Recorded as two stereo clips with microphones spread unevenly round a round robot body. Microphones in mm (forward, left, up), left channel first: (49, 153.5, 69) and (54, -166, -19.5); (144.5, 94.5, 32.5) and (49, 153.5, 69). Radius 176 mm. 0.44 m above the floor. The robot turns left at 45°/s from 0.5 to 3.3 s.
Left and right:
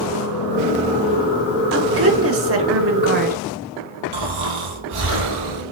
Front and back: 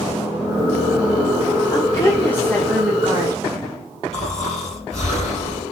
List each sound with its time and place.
1.7 s a woman speaking: 65° right, 1.8 m; by 3.4 s 135° right, 1.8 m
4.1 s snoring: 85° right, 3.5 m